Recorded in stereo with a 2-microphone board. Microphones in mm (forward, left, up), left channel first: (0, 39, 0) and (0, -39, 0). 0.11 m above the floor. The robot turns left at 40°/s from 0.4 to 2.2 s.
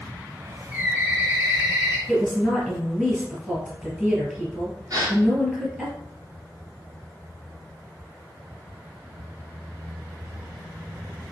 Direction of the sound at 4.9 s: 50° right (ahead or behind).